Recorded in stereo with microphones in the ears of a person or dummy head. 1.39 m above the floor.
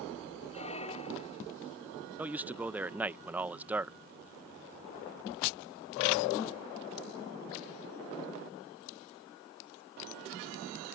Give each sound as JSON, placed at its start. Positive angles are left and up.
{"t": 0.5, "sound": "a squeak", "side_deg": 25}
{"t": 2.2, "sound": "a man speaking", "side_deg": -20}